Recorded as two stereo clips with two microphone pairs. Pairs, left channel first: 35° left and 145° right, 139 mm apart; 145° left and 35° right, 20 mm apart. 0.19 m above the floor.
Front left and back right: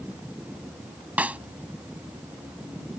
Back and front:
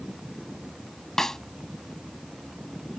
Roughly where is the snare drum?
Behind left.